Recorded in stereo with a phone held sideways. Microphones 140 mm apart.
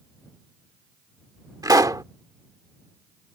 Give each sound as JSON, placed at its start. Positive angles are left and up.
{"t": 1.6, "sound": "a pop", "side_deg": -25}